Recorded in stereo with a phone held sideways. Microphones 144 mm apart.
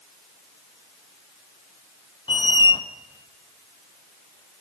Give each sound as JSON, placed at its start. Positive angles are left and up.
{"t": 2.3, "sound": "a squeak", "side_deg": 35, "distance_m": 0.8}